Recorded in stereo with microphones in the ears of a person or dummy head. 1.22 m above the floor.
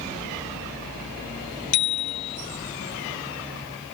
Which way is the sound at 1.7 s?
85° left.